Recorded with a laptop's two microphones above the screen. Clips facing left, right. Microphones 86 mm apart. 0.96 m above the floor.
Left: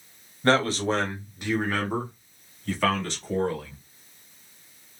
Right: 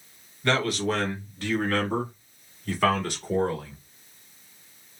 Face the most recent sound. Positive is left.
turn(degrees=-15)  # may be behind; listen again after turning